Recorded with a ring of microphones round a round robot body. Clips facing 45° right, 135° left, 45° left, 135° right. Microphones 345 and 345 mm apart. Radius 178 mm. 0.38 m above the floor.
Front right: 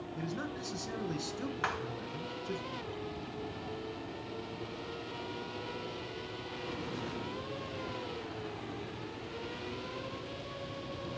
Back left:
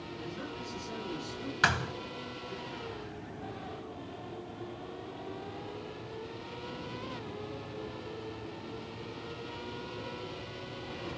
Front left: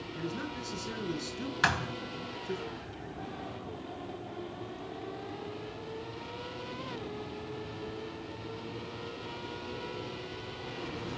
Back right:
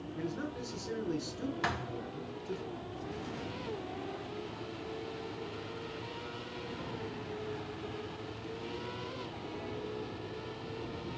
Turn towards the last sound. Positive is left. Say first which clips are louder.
# back left 3 dB, front left 2 dB
turn(degrees=105)